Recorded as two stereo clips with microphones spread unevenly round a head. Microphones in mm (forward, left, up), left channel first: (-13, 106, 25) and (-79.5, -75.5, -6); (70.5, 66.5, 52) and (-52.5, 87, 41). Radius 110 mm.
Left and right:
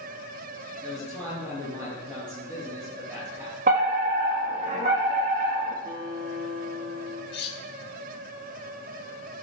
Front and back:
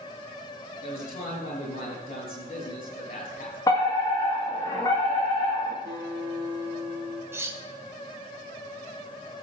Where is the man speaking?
30° right, 6.5 m.